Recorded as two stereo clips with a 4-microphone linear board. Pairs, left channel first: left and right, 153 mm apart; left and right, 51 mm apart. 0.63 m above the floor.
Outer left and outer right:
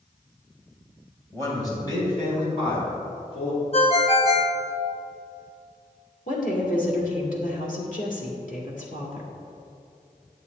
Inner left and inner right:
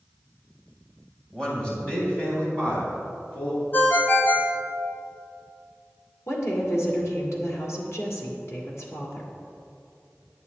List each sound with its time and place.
1.3 s a man speaking: 20° left (ahead or behind), 3 m; by 3.6 s 40° left (ahead or behind), 5 m
3.7 s a ringtone: 45° left (ahead or behind), 1.0 m
6.3 s a woman speaking: 60° left (ahead or behind), 2.0 m